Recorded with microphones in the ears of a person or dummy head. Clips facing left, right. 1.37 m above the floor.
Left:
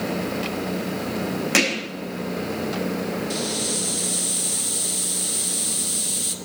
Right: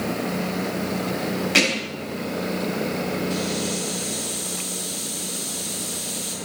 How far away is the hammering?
About 5.5 m.